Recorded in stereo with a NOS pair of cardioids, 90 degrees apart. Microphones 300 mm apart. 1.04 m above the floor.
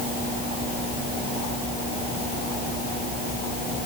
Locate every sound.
Only background noise.